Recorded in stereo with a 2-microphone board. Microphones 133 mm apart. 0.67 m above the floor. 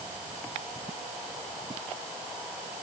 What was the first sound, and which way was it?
Only background noise.